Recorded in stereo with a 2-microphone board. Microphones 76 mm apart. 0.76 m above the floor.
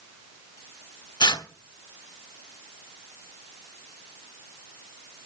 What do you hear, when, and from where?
1.2 s tearing paper: 70° left (ahead or behind), 1.2 m